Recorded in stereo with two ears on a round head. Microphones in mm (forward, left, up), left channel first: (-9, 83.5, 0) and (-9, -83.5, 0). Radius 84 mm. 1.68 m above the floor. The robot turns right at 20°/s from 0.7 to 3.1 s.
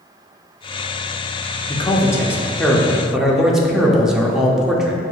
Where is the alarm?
I don't hear an alarm.